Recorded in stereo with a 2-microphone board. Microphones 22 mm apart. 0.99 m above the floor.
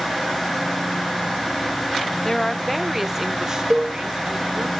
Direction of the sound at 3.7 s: 35° right (ahead or behind).